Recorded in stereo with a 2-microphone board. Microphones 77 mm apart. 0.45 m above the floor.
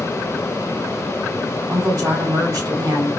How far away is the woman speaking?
About 1.5 m.